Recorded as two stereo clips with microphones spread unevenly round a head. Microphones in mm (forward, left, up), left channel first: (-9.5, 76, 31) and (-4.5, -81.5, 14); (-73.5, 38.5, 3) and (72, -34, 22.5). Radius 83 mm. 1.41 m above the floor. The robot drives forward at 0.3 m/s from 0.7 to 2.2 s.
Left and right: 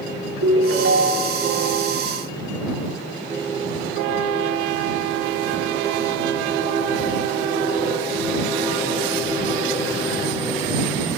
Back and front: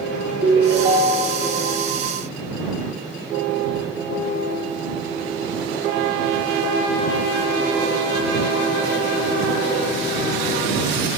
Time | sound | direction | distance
0.4 | a ringtone | 85° right | 1.5 m